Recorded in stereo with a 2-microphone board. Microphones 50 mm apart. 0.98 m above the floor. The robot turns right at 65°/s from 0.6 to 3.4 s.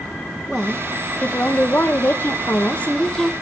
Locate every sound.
0.5 s a woman speaking: straight ahead, 1.0 m; by 3.3 s 175° left, 1.0 m